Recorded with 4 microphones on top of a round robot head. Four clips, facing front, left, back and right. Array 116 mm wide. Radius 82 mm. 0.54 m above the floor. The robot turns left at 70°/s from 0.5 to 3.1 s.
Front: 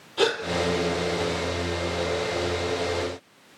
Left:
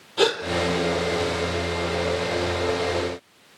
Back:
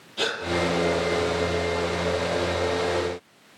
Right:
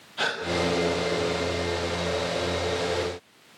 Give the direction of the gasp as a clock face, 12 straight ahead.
9 o'clock.